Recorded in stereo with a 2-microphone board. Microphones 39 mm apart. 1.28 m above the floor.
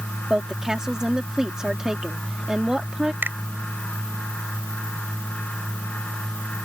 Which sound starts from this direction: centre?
A woman speaking, at 0.3 s.